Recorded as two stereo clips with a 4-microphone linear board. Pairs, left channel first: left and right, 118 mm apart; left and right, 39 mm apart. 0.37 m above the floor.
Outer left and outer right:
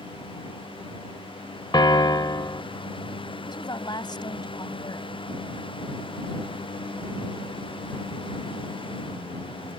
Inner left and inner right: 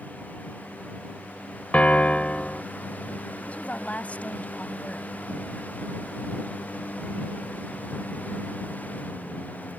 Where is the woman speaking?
40° left (ahead or behind).